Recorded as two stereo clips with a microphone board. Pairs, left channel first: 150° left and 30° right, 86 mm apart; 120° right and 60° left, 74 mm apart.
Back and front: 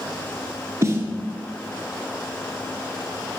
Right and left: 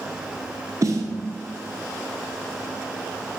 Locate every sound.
0.8 s a snare drum: 20° left, 1.4 m